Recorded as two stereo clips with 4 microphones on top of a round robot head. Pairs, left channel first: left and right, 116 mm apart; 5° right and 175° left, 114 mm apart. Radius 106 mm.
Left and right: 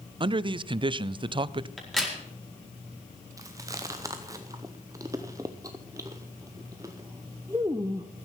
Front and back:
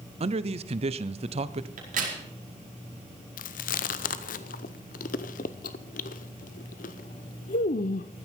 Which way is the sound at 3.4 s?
20° right.